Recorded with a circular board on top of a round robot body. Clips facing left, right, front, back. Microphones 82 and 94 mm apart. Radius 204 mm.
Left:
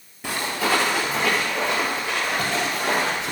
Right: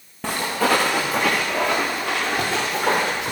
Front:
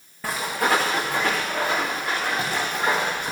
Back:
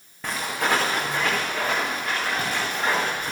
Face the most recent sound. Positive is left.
turn(degrees=-85)